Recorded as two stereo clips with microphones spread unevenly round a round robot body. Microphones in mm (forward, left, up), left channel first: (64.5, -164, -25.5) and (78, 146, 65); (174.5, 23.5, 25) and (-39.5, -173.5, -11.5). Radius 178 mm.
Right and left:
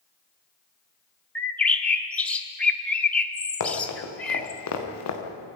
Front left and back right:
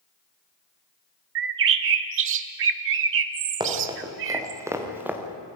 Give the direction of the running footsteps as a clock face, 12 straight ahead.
2 o'clock.